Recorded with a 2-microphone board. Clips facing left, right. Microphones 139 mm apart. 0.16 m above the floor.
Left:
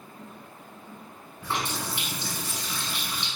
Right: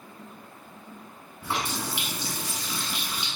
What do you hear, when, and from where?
1.4 s a running tap: 10° right (ahead or behind), 1.2 m